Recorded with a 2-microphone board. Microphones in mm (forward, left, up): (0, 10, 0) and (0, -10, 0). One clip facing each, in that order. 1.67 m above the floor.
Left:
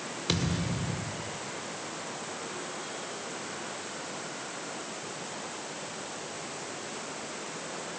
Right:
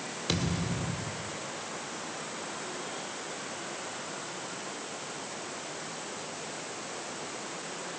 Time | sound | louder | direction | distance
0.3 | a thud | left 1 dB | 10° left (ahead or behind) | 1.9 m